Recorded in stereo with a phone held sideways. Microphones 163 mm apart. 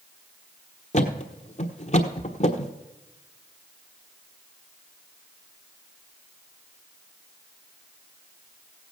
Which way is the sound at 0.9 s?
45° left (ahead or behind).